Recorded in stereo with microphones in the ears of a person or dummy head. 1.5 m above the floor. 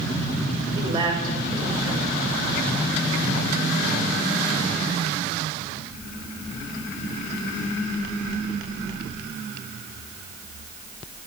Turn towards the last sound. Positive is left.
turn(degrees=-35)  # may be behind; listen again after turning